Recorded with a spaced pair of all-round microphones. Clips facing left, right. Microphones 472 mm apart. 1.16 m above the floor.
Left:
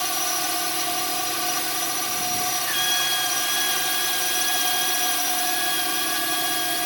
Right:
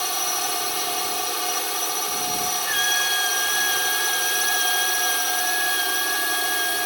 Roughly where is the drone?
Left.